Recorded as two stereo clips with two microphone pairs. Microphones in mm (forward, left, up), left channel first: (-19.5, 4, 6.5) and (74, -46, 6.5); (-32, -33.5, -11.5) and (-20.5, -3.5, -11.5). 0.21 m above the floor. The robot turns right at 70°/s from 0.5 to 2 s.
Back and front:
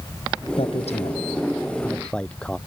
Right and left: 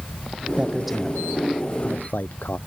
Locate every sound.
0.6 s a man speaking: 135° left; by 2.6 s 125° right